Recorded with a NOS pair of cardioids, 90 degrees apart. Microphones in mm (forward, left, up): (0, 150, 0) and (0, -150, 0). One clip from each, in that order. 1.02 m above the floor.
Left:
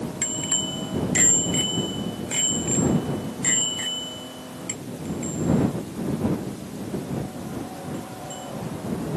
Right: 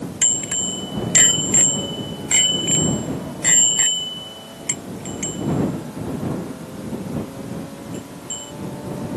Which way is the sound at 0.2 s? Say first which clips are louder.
Right 5 dB; 30° right.